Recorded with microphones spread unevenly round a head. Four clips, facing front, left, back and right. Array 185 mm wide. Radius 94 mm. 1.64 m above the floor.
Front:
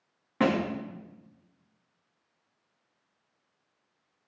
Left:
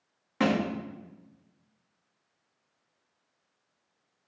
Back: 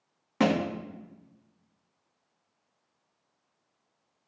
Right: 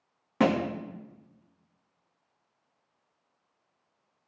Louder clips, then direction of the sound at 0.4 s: Right 2 dB, even; 100° right.